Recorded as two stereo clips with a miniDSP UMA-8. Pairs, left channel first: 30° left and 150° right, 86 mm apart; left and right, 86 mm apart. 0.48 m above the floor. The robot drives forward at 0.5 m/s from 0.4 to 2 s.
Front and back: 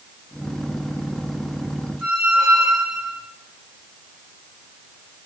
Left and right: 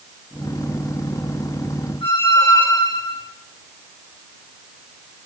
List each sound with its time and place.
2.0 s a squeak: 125° left, 10 m